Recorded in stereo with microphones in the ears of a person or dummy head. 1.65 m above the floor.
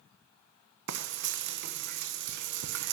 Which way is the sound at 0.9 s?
55° right (ahead or behind).